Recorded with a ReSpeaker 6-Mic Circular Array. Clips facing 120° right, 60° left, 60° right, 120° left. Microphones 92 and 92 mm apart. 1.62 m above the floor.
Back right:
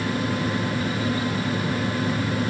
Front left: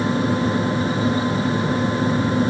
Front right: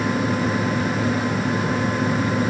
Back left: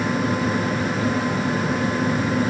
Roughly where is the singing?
I don't hear singing.